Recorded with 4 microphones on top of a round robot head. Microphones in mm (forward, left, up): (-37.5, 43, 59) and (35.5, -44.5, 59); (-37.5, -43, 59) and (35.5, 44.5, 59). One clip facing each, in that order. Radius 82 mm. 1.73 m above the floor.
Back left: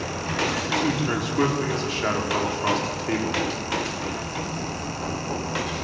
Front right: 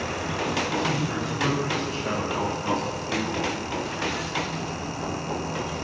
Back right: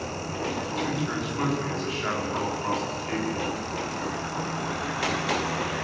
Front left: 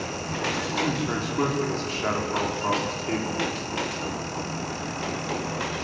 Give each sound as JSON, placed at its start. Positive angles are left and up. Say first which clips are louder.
{"t": 0.7, "sound": "a man speaking", "louder": "back left 2 dB, front left 2 dB", "azimuth_deg": 105, "distance_m": 5.5}